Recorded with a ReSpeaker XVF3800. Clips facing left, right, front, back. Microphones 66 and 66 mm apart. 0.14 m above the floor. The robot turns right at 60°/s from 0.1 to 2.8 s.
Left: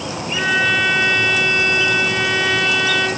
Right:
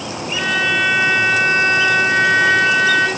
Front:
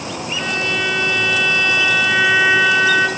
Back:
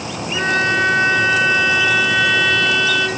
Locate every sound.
0.3 s a violin: 160° left, 1.0 m; by 3.1 s 50° right, 1.0 m